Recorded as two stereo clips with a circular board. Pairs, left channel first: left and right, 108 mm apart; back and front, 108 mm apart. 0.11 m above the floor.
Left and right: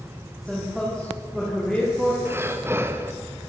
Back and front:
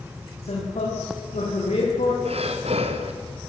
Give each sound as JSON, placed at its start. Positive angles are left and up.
{"t": 0.4, "sound": "a man speaking", "azimuth_deg": 180, "distance_m": 7.0}
{"t": 2.2, "sound": "breathing", "azimuth_deg": -20, "distance_m": 2.5}